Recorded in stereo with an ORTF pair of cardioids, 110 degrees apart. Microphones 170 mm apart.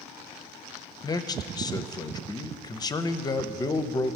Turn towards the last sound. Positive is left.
turn(degrees=25)